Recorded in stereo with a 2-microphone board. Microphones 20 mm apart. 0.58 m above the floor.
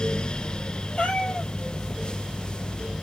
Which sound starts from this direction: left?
A cat meowing, at 1.0 s.